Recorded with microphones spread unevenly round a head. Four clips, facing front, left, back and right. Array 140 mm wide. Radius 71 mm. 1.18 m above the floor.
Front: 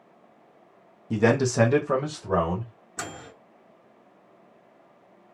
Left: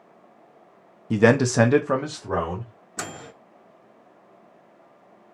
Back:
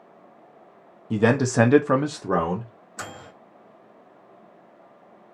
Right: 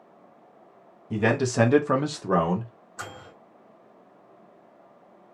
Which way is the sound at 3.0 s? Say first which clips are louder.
Left 4 dB, even; 80° left.